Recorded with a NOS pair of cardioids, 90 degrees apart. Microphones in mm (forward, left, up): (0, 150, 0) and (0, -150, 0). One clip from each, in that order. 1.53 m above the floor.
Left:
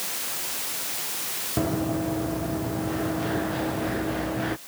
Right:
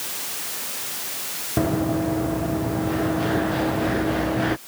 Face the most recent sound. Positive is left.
turn(degrees=-35)